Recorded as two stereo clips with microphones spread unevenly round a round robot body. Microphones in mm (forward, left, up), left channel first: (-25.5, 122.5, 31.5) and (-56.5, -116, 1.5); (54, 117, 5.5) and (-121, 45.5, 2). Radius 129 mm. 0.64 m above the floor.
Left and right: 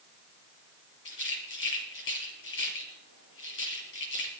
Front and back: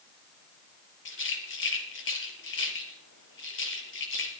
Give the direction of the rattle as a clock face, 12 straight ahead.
11 o'clock.